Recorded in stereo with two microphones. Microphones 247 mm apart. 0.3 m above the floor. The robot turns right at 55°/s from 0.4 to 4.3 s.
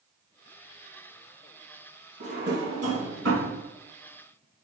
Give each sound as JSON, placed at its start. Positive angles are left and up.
{"t": 2.2, "sound": "a drawer", "side_deg": -30, "distance_m": 1.1}